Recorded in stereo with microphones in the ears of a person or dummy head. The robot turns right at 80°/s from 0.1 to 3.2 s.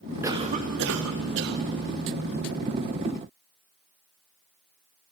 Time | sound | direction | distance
0.2 | a cough | 160° right | 1.5 m